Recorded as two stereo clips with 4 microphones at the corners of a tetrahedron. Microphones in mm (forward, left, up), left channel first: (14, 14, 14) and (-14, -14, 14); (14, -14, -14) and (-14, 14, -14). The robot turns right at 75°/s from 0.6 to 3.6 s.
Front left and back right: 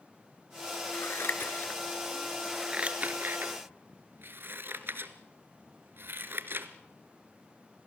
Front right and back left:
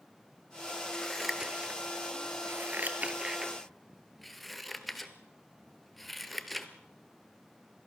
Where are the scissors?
25° left, 1.3 m; by 6.7 s 135° right, 1.3 m.